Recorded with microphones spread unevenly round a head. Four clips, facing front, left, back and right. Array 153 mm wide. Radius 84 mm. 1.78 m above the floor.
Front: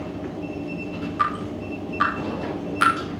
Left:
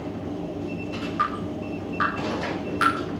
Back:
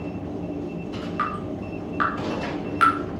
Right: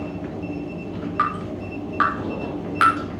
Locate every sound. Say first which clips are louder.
1.2 s dripping: right 3 dB, front 4 dB; 110° right, 6 m